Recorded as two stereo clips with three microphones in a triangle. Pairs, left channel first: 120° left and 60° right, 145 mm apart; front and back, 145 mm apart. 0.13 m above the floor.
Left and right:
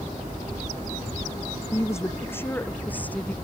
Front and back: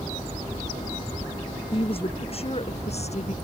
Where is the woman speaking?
50° left; by 3.3 s 40° left.